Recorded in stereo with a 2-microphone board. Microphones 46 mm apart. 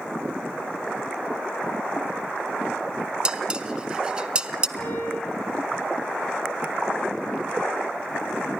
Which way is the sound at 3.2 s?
20° right (ahead or behind).